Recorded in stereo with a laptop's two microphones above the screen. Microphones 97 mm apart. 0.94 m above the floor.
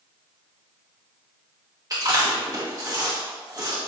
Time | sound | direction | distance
1.9 | chewing | 40° right (ahead or behind) | 1.1 m